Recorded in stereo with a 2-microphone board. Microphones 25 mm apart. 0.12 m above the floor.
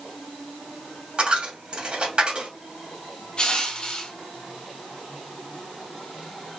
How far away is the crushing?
About 1.6 m.